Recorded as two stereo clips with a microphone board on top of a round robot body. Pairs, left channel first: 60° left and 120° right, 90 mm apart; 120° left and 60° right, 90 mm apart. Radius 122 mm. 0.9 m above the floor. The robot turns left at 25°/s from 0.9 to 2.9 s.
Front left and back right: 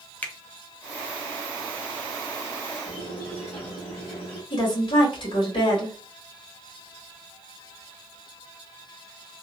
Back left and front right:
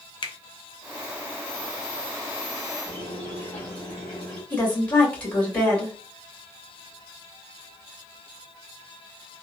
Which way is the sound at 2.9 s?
45° left.